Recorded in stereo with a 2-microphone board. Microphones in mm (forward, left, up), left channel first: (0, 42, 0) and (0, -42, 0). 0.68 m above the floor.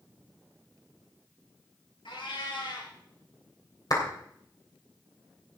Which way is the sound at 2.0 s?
80° left.